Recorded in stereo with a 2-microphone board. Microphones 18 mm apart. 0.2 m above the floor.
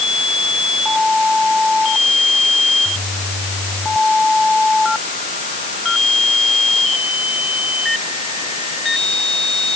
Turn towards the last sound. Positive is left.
No sound to turn to.